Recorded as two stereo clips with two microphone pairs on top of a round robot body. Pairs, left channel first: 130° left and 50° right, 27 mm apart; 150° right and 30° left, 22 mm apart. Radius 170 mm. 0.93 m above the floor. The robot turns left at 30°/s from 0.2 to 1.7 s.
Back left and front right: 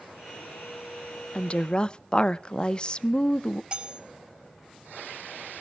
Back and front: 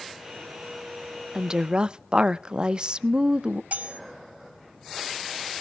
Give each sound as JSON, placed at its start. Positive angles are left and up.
{"t": 1.4, "sound": "a woman speaking", "azimuth_deg": 85, "distance_m": 0.7}
{"t": 3.7, "sound": "cutlery clinking", "azimuth_deg": 10, "distance_m": 1.8}